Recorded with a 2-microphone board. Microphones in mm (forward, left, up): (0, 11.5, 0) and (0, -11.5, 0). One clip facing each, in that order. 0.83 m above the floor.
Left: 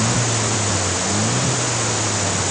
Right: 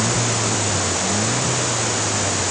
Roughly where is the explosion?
No explosion in this recording.